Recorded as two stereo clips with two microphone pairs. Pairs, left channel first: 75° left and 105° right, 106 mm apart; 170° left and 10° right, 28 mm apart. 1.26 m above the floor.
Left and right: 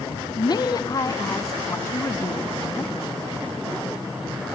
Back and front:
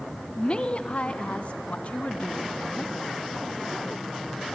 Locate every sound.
0.3 s a woman speaking: 115° left, 1.0 m; by 2.9 s 140° left, 2.5 m